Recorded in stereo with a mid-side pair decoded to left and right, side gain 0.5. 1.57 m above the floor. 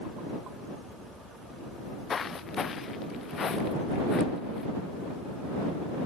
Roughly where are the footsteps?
Ahead left.